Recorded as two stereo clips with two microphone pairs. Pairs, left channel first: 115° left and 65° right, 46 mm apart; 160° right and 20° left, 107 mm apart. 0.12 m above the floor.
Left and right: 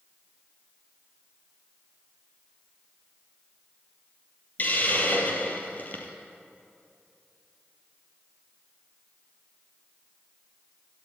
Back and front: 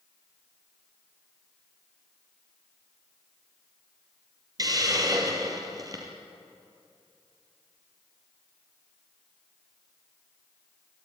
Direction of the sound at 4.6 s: 70° left.